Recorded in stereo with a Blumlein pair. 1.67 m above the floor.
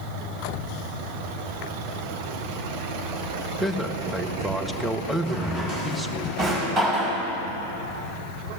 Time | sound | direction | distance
3.6 | a man speaking | straight ahead | 1.3 m
5.3 | a drawer | 30° right | 5 m